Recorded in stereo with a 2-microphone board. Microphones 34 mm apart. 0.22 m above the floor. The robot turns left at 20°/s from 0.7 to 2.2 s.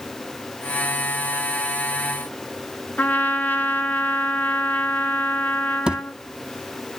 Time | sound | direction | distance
3.0 | a trumpet | 70° left (ahead or behind) | 1.1 m
5.9 | a thud | 30° right (ahead or behind) | 0.6 m